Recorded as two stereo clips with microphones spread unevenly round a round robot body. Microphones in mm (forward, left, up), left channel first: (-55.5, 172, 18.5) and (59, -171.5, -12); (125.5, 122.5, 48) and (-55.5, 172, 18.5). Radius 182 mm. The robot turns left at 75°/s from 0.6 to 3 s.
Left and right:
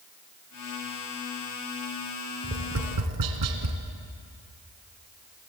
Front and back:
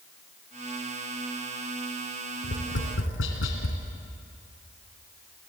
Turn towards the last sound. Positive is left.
turn(degrees=-35)